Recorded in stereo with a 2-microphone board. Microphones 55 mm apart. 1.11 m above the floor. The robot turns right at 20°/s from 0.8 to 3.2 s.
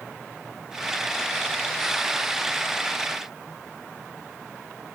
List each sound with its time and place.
Only background noise.